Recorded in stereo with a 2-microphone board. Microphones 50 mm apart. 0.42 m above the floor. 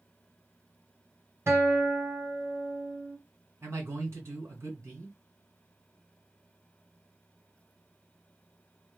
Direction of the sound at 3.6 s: 55° right (ahead or behind).